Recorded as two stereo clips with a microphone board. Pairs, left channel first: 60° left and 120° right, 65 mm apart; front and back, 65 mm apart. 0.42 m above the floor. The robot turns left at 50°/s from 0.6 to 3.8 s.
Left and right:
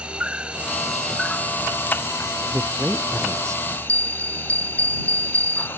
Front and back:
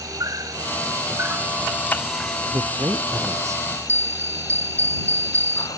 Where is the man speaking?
165° right; by 3.6 s 135° left.